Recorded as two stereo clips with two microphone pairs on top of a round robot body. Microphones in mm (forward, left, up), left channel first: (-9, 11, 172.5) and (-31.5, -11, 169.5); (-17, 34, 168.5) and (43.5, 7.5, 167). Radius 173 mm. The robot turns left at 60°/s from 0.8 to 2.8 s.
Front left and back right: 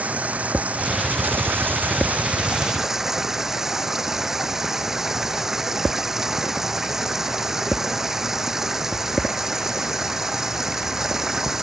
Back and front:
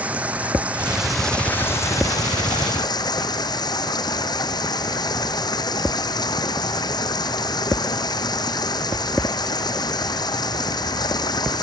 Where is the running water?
95° right; by 11.6 s 145° left.